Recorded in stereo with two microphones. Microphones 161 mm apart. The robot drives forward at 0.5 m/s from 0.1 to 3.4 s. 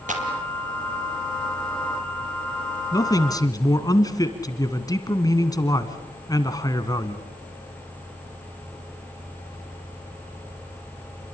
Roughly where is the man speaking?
Left.